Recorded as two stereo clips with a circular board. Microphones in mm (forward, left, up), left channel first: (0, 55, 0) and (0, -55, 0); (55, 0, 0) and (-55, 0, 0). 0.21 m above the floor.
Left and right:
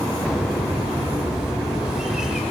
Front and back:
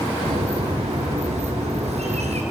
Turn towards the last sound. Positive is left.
turn(degrees=-175)